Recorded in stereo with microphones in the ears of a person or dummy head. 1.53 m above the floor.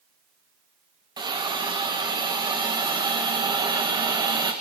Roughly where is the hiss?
Right.